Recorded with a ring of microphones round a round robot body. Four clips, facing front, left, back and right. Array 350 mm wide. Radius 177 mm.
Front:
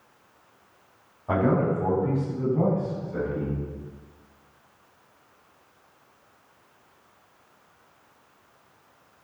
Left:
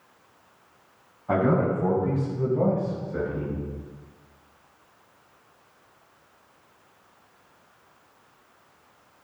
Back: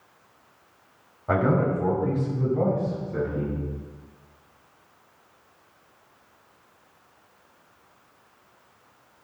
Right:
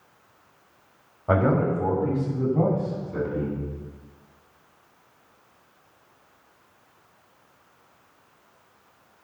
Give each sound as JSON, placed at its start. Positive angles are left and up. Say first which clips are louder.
{"t": 1.3, "sound": "a man speaking", "louder": "right 1 dB, even", "azimuth_deg": -100, "distance_m": 4.5}